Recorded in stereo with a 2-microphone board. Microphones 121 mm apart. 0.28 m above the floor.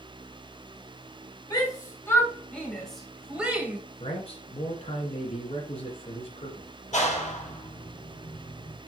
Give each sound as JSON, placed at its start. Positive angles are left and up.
{"t": 1.5, "sound": "a shout", "side_deg": 30, "distance_m": 1.9}
{"t": 4.0, "sound": "a man speaking", "side_deg": 55, "distance_m": 2.5}
{"t": 6.9, "sound": "a clap", "side_deg": 75, "distance_m": 5.0}